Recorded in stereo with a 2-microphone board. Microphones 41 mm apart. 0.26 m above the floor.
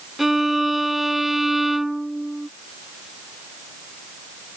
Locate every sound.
0.2 s a violin: 5° right (ahead or behind)